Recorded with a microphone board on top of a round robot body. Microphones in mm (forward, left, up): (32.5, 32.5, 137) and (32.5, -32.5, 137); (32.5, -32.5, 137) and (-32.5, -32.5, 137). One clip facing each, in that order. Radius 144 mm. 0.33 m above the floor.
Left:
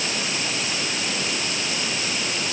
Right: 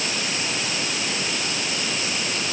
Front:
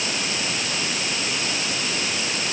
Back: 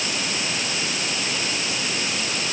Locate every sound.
Only background noise.